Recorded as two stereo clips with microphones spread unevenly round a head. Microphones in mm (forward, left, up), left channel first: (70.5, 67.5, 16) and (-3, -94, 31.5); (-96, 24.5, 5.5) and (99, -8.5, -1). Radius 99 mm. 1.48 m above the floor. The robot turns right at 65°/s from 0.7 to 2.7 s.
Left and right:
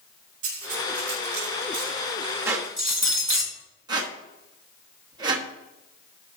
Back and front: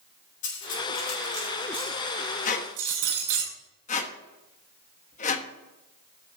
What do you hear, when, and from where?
0.4 s cutlery clinking: 160° right, 4 m; by 3.5 s 30° right, 4 m
2.5 s a squeak: 175° left, 1.0 m; by 5.5 s 165° right, 1.0 m